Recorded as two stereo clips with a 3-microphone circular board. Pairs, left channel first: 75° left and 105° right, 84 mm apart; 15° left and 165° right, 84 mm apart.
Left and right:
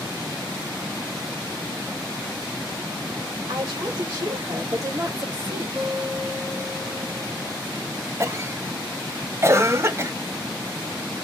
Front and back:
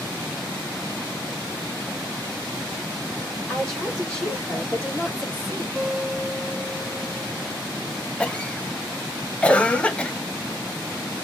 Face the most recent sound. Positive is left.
turn(degrees=-55)